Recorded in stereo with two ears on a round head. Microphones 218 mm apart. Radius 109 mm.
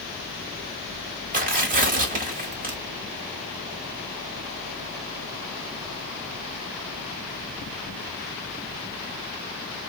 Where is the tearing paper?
35° right (ahead or behind), 0.9 m.